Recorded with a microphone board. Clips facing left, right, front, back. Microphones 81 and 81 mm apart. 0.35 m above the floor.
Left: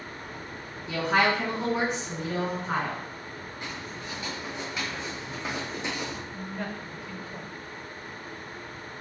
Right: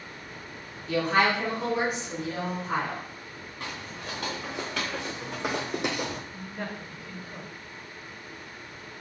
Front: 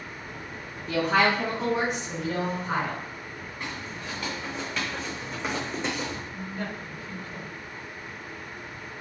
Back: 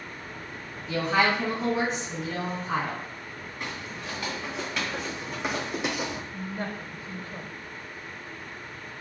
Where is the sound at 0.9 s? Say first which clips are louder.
Even, front 1 dB; 15° left, 3 m; by 3.0 s 35° left, 4 m.